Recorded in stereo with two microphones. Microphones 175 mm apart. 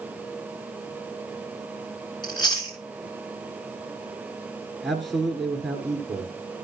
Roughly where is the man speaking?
Centre.